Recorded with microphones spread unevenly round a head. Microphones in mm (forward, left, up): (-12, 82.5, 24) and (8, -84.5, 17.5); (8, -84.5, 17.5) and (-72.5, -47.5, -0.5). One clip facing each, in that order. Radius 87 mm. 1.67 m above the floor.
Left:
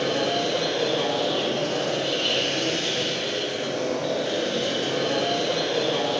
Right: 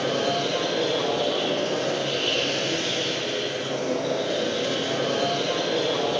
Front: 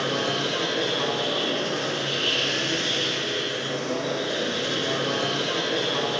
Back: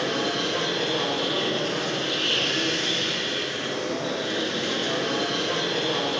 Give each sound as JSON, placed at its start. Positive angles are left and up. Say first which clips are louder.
{"t": 0.0, "sound": "a machine running", "louder": "even, even", "azimuth_deg": 90, "distance_m": 5.0}